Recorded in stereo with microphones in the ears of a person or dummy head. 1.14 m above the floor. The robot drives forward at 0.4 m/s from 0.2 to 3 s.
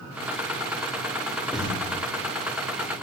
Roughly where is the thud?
Centre.